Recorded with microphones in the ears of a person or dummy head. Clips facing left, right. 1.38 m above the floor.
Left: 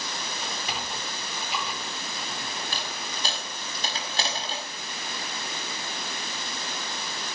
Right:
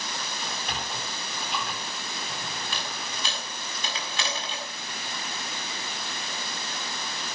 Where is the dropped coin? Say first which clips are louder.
Even; 35° left (ahead or behind), 6.5 m.